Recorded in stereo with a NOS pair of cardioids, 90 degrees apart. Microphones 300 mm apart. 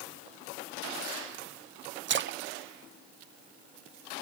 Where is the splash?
40° right, 0.7 m.